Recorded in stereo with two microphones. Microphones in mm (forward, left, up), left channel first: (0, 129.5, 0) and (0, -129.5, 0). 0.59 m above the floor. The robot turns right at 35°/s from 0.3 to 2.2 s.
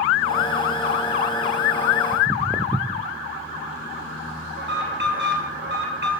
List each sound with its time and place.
2.1 s footsteps: 5° left (ahead or behind), 0.7 m
4.6 s an alarm: 45° right (ahead or behind), 2.5 m